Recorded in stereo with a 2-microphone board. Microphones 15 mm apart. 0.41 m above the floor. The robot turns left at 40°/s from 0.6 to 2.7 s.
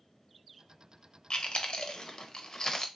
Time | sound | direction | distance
1.3 | chewing | 70° left (ahead or behind) | 0.6 m